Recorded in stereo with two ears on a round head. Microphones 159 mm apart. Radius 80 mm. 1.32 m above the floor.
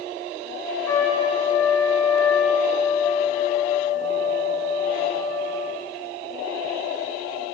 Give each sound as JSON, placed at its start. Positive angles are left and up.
{"t": 0.9, "sound": "a trumpet", "side_deg": 15, "distance_m": 0.9}